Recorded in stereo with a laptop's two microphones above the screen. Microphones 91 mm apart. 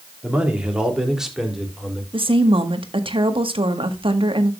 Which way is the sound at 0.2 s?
15° right (ahead or behind).